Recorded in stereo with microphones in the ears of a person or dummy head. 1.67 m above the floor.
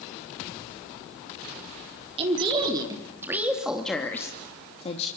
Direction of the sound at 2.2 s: 35° right (ahead or behind).